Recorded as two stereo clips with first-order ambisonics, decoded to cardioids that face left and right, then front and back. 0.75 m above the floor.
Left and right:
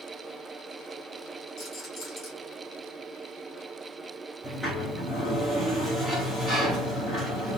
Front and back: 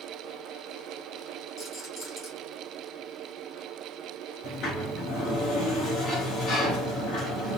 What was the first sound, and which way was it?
A rattle, 45° left.